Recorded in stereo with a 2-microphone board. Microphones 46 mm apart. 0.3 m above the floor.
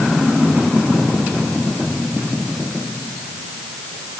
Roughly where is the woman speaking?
No woman speaking in this recording.